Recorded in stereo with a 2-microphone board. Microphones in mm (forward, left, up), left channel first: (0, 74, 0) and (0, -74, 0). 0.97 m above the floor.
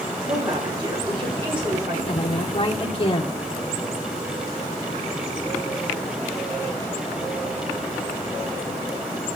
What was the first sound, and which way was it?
A woman speaking, 35° right (ahead or behind).